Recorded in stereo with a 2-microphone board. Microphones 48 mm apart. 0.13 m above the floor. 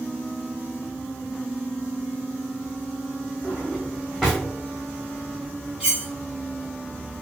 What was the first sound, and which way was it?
A drawer, 10° right (ahead or behind).